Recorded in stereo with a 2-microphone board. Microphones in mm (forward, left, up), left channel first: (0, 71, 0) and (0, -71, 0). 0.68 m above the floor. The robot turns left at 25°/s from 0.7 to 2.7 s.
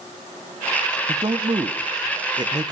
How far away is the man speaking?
About 1.1 m.